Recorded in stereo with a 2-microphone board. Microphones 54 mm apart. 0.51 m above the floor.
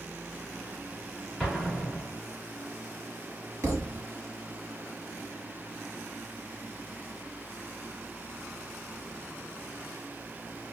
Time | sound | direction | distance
1.4 | an explosion | centre (ahead or behind) | 1.2 m
3.6 | a thud | 60° right (ahead or behind) | 1.1 m